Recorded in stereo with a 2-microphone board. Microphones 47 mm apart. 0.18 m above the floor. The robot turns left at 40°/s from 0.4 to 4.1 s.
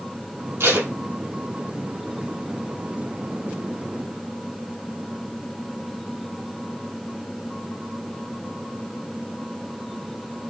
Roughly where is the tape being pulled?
Right.